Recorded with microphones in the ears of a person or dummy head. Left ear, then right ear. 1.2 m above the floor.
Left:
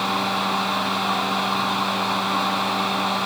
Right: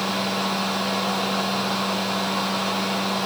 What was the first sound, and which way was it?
A fan, 55° left (ahead or behind).